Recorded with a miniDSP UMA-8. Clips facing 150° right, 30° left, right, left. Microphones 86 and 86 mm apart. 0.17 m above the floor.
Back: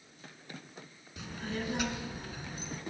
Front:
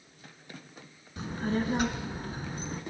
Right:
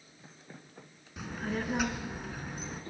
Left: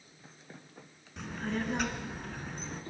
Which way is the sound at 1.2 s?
5° right.